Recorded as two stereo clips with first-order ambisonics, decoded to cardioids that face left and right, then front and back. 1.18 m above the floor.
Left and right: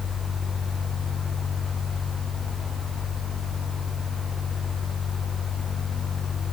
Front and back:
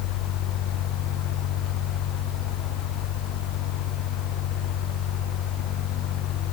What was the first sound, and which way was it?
Only background noise.